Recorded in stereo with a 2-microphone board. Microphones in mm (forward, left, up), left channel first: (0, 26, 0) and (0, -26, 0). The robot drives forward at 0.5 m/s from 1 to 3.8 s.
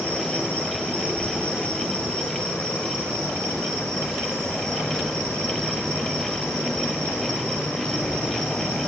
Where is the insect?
30° left (ahead or behind), 6 m; by 8.9 s 25° left (ahead or behind), 7 m.